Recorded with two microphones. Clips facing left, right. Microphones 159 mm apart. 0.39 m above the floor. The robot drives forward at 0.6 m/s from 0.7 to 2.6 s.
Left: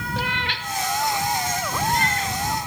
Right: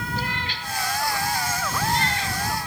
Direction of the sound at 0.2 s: 80° left.